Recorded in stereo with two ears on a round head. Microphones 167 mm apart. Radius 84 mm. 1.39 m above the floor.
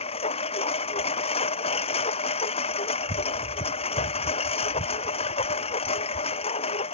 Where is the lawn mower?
35° left (ahead or behind).